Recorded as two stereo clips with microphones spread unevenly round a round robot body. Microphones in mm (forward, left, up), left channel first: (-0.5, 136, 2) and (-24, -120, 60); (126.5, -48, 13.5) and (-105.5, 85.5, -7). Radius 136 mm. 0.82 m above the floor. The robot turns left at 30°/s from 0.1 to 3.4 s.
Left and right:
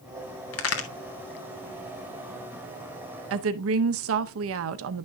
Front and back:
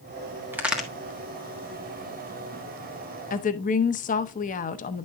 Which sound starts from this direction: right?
A woman speaking, at 3.3 s.